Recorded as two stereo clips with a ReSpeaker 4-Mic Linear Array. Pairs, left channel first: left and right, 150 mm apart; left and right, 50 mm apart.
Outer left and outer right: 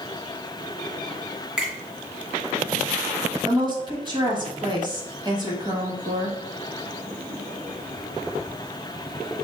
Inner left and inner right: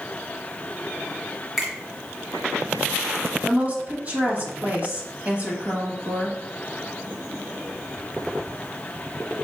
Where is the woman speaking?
30° right (ahead or behind), 1.0 m.